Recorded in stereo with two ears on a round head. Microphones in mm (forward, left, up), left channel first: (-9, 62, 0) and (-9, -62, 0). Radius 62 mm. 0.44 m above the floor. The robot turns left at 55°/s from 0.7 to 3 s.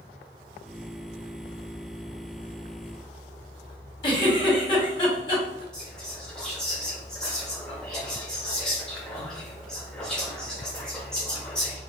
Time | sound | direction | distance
4.0 | a giggle | 35° left (ahead or behind) | 1.6 m
5.7 | whispering | 5° left (ahead or behind) | 1.1 m